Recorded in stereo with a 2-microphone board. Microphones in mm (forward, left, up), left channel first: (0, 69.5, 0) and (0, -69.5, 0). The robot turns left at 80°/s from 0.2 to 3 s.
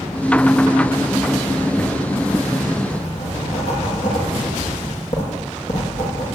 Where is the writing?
50° left (ahead or behind), 8 m; by 6.3 s 60° left (ahead or behind), 8 m.